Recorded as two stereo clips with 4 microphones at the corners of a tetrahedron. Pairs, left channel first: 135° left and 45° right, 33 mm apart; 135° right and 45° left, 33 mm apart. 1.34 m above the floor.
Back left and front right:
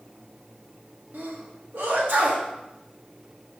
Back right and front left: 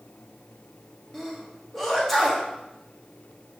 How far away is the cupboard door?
I don't hear a cupboard door.